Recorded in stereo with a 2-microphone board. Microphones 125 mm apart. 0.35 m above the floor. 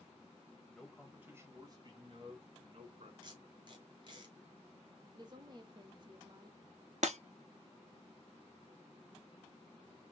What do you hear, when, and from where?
0.7 s a man speaking: 5° left (ahead or behind), 1.4 m; by 3.1 s 60° right (ahead or behind), 2.5 m
3.2 s tape being pulled: 40° right (ahead or behind), 1.8 m
5.1 s a woman speaking: 40° right (ahead or behind), 1.1 m
7.0 s breaking glass: 75° right (ahead or behind), 0.8 m